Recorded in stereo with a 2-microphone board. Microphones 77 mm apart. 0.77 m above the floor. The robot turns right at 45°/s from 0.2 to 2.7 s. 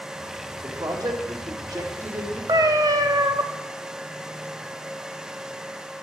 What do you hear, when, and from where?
0.6 s a man speaking: 115° right, 2 m; by 2.4 s 35° right, 2 m
2.5 s a cat meowing: 55° right (ahead or behind), 0.6 m; by 3.4 s 60° right (ahead or behind), 0.6 m